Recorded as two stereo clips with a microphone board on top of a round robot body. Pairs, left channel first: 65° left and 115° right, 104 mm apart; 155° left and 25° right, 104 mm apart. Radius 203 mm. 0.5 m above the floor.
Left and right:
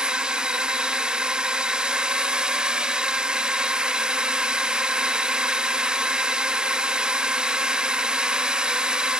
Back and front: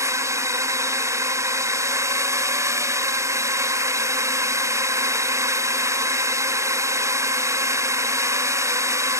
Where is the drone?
40° right.